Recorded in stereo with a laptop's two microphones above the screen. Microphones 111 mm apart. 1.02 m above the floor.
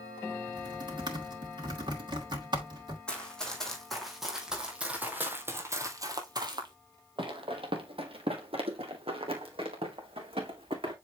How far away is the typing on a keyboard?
About 2.5 m.